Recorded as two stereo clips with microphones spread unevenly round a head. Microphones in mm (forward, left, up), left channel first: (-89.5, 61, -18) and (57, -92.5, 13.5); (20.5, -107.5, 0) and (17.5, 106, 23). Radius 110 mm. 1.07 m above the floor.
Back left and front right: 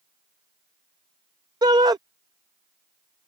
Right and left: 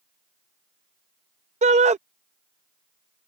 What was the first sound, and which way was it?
A shout, 30° left.